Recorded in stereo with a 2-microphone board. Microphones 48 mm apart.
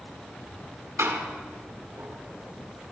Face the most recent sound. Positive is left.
turn(degrees=-70)  # may be behind; listen again after turning